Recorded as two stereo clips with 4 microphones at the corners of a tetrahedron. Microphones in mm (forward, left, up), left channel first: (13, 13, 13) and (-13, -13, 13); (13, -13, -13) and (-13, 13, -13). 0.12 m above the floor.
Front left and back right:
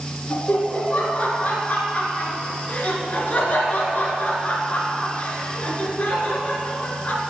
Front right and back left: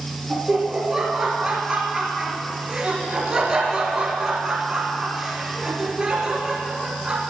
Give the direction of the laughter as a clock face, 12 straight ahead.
10 o'clock.